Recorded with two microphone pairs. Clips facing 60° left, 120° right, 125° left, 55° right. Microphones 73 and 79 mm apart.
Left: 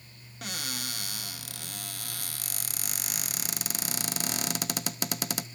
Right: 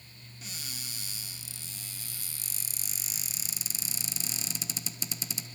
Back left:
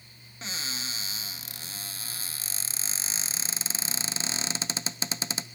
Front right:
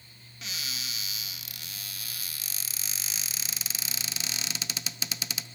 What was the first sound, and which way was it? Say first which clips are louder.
A cupboard door: left 9 dB, back left 3 dB; 70° left.